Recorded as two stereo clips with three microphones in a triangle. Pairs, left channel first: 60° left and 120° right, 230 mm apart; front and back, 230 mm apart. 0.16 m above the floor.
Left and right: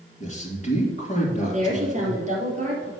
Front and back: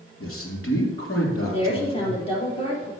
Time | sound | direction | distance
0.2 | a man speaking | 5° left | 3.5 m
1.5 | a woman speaking | 65° right | 3.5 m